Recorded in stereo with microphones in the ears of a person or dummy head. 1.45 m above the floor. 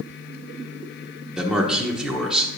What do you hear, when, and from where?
1.4 s a man speaking: centre (ahead or behind), 0.9 m